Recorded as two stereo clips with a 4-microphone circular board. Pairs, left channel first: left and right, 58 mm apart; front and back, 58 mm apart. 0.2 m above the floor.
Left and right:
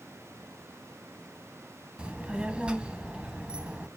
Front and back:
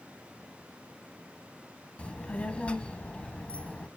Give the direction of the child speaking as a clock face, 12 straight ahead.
1 o'clock.